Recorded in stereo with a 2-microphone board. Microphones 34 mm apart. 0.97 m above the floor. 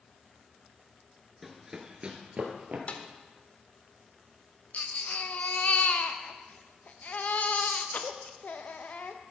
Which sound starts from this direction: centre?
Running footsteps, at 1.4 s.